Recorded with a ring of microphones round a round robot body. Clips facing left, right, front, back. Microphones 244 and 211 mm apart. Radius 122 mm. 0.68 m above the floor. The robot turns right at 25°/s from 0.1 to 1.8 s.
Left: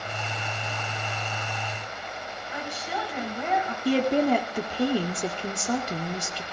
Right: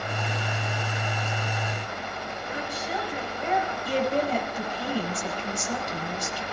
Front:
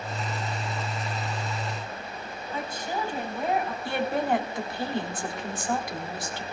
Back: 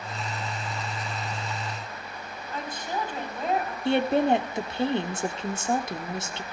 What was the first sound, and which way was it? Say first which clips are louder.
A woman speaking: right 1 dB, front 1 dB; 80° left.